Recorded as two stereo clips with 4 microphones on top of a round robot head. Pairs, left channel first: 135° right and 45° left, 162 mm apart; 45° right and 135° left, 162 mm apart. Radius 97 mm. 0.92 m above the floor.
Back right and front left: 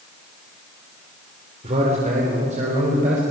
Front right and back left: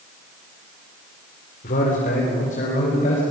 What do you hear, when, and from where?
1.6 s a man speaking: 5° right, 2.5 m; by 3.2 s straight ahead, 4 m